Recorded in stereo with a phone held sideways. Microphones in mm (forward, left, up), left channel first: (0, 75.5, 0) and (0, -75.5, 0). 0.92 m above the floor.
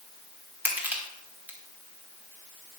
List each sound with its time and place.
0.7 s crushing: 10° right (ahead or behind), 2.5 m